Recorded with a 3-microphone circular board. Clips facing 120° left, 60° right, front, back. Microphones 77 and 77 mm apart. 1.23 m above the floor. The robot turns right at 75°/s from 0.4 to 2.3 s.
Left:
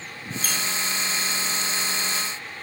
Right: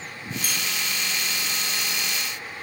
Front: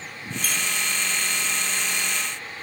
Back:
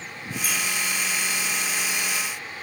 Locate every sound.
0.4 s a squeak: 120° right, 1.8 m; by 0.6 s 110° right, 1.8 m